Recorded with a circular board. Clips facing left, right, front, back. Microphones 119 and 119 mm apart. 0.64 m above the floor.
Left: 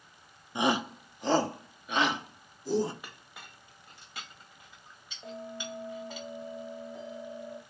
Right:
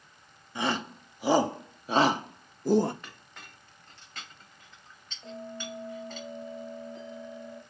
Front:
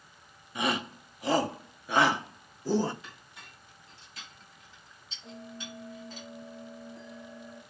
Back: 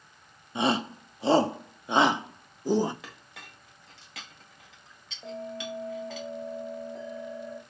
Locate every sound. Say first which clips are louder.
0.6 s a shout: left 3 dB, back 4 dB; 145° left, 0.8 m; by 2.9 s 105° right, 1.2 m
3.0 s a clink: even, back 3 dB; 170° left, 1.9 m
5.2 s a bell: right 1 dB, back 8 dB; 170° left, 2 m